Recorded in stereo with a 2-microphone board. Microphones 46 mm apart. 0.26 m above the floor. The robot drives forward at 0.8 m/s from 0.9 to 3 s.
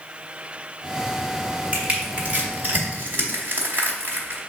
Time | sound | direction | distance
1.7 | crushing | 30° right (ahead or behind) | 1.7 m